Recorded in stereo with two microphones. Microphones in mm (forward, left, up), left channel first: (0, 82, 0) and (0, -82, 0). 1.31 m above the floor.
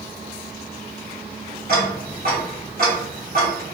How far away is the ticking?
About 1.0 m.